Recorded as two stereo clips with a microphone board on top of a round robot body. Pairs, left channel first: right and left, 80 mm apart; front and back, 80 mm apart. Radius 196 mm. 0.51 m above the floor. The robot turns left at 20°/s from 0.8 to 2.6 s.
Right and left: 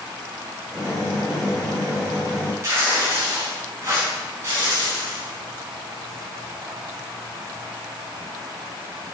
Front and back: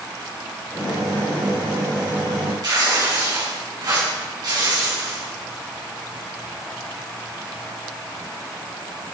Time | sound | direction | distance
2.6 | tearing paper | 145° left | 5 m